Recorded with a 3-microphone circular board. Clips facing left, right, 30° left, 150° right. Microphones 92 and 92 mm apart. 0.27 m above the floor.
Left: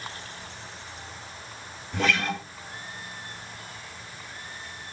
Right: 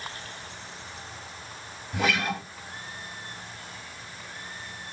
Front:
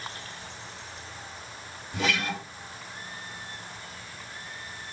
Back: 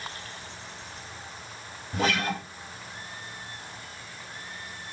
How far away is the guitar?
About 0.7 m.